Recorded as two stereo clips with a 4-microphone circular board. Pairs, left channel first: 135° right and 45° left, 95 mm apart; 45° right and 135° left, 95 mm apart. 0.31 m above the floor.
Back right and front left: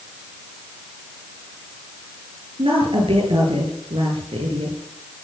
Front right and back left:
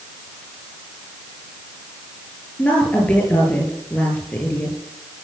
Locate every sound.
2.6 s a woman speaking: 30° left, 8.5 m